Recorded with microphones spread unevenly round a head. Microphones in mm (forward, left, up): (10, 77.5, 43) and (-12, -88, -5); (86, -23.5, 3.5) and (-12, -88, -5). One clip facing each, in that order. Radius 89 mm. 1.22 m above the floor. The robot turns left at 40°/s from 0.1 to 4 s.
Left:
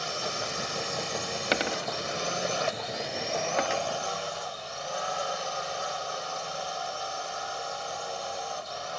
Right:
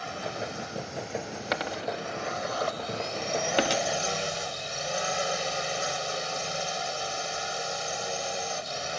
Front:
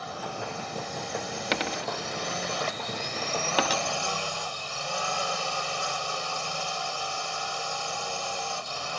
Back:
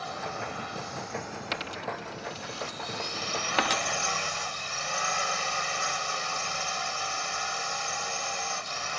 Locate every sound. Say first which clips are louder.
0.0 s a drone: even, even; 120° left; by 9.0 s 35° right
1.5 s a dropped coin: left 1 dB, front 5 dB; 45° left; by 3.8 s 50° right